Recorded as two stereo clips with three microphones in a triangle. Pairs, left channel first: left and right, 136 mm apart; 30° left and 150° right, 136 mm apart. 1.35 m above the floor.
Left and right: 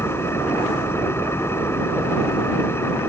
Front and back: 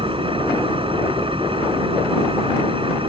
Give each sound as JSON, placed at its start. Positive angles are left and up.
{"t": 0.0, "sound": "an engine running", "azimuth_deg": 160}